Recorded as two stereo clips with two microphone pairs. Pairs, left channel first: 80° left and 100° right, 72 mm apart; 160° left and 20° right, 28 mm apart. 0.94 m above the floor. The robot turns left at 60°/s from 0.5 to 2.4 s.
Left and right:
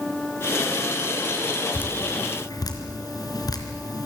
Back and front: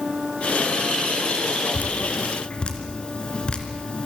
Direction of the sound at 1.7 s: 150° left.